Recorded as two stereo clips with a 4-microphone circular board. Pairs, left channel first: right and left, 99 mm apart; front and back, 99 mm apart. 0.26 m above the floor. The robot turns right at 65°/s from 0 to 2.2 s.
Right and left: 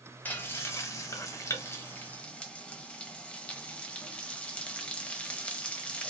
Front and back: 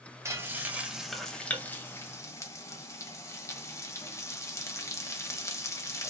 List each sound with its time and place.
0.2 s frying: 150° right, 0.6 m; by 6.1 s 20° right, 0.6 m